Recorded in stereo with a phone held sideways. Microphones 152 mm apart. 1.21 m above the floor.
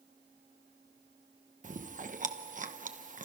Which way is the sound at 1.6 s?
60° right (ahead or behind).